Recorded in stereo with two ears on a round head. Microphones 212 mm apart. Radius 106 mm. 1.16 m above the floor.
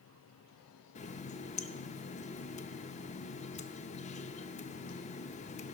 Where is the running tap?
30° left (ahead or behind), 0.5 m.